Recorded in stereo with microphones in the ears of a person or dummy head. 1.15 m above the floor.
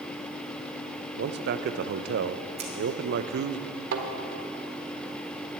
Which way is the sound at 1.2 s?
60° right (ahead or behind).